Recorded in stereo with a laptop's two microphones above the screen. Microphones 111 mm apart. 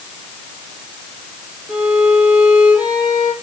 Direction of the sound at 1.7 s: 15° right (ahead or behind).